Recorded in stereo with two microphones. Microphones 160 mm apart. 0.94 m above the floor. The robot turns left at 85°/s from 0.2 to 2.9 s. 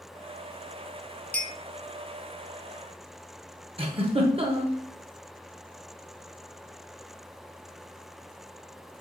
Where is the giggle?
35° right (ahead or behind), 0.7 m.